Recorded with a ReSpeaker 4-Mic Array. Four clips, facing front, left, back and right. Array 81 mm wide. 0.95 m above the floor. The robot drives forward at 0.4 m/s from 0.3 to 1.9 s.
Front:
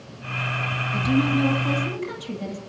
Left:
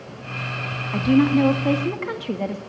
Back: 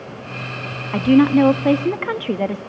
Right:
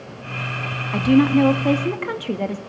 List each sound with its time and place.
0.9 s a woman speaking: 170° right, 1.2 m